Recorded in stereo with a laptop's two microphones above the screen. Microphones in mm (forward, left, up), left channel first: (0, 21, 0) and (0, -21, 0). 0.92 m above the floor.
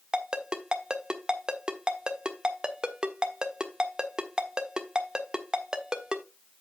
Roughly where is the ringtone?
Centre.